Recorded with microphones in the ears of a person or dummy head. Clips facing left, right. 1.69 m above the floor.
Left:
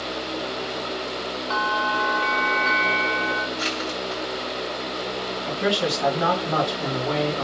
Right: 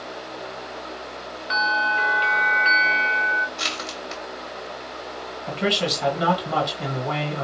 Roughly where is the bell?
Right.